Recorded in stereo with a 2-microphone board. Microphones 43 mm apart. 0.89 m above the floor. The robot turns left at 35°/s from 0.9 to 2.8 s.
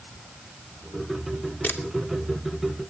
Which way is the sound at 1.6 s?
55° left (ahead or behind).